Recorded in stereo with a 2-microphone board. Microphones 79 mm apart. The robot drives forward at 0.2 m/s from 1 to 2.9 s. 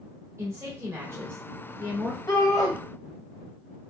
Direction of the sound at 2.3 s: 50° left (ahead or behind).